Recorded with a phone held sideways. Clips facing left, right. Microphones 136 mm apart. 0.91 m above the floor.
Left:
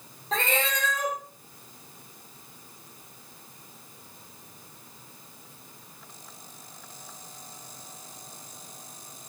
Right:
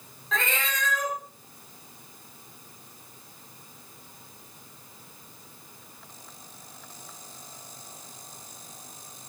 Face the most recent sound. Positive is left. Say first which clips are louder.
# left 3 dB
turn(degrees=35)  # may be behind; listen again after turning